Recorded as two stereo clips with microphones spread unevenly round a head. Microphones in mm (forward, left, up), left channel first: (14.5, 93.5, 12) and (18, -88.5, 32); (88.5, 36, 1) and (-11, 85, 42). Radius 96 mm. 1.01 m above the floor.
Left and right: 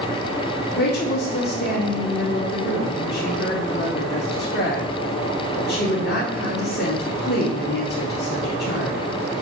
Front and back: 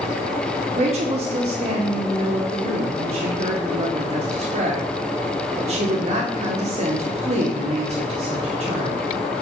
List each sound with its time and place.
0.8 s a woman speaking: 120° left, 2 m